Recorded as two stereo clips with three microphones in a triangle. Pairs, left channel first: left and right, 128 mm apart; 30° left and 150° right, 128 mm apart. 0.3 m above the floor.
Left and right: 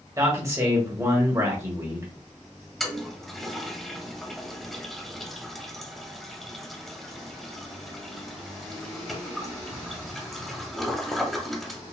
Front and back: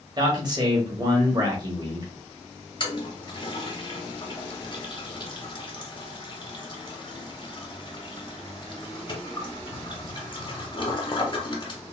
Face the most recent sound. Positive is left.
turn(degrees=5)